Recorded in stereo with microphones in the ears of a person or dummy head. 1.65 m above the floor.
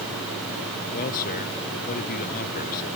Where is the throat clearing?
No throat clearing in this recording.